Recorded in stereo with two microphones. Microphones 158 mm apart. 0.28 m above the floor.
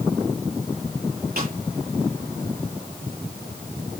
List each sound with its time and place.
1.4 s a snare drum: 70° right (ahead or behind), 7.5 m